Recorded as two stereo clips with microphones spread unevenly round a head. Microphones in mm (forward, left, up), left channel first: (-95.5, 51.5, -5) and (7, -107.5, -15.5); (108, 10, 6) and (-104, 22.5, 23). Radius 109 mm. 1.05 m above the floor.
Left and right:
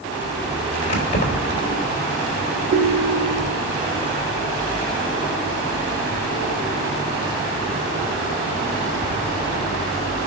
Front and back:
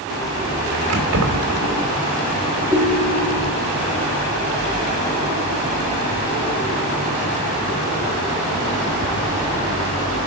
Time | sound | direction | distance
0.9 | keys jangling | 155° left | 3 m
2.7 | a ringtone | 95° right | 1.2 m